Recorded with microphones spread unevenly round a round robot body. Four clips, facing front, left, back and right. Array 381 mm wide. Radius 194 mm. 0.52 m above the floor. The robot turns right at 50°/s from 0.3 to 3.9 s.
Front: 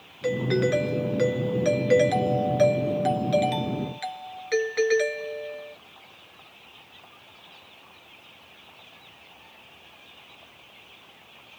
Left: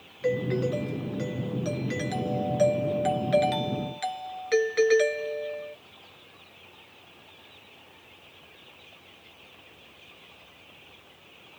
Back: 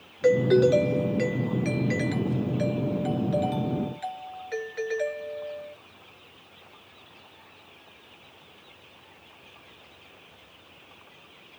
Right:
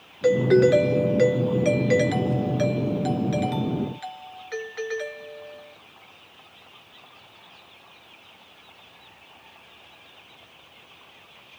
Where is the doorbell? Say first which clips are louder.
Right 10 dB, back 5 dB; 115° right; by 5.8 s 65° left.